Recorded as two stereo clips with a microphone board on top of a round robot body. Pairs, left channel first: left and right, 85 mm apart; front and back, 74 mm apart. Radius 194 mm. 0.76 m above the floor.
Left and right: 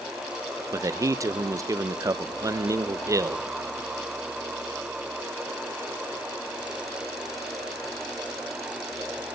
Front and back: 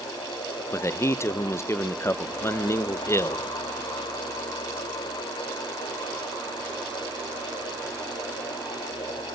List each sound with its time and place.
0.7 s a man speaking: 45° right, 0.9 m